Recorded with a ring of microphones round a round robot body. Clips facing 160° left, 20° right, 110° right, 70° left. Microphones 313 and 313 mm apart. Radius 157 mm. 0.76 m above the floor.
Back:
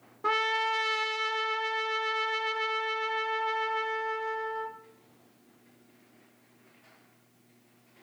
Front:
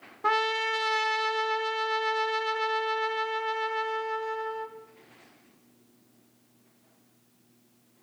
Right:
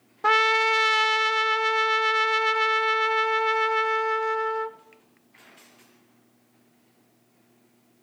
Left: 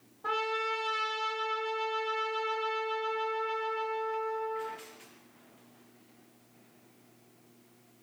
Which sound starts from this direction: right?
A trumpet, at 0.2 s.